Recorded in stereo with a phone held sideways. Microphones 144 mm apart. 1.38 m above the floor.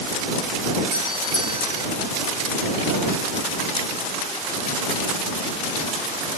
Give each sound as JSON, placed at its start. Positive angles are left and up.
{"t": 0.9, "sound": "a doorbell", "side_deg": 75}